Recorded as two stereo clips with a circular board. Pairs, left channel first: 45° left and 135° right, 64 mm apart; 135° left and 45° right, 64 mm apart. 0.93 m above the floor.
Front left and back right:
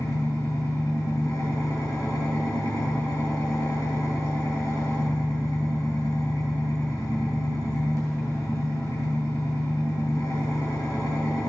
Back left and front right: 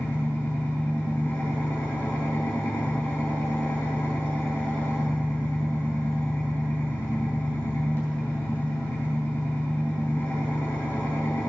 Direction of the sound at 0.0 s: 70° left.